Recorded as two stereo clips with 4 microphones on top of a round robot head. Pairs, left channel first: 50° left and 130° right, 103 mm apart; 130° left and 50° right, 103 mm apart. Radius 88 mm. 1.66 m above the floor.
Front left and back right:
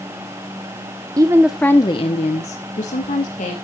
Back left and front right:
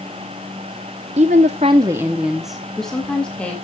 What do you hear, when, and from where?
1.2 s a woman speaking: 75° right, 0.8 m; by 3.5 s 50° left, 2.5 m